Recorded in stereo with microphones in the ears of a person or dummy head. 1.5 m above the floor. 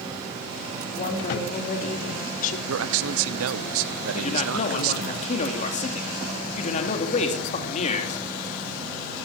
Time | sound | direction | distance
1.0 | a woman speaking | 50° left (ahead or behind) | 4 m
2.7 | a man speaking | 80° right | 0.9 m
4.1 | a man speaking | 40° left (ahead or behind) | 3 m